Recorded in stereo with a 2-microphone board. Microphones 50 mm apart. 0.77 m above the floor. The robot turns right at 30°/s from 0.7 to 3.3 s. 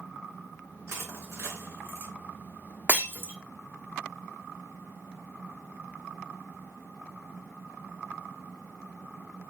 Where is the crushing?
65° right (ahead or behind), 2.5 m; by 2.1 s 60° right (ahead or behind), 2.5 m.